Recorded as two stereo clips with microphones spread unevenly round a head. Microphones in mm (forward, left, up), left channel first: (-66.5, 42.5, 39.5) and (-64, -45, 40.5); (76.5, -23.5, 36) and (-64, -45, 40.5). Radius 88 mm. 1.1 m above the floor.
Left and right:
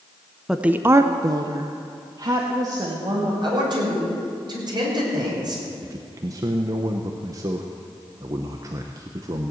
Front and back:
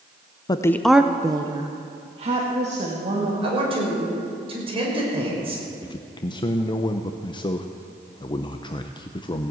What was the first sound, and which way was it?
A woman speaking, 5° right.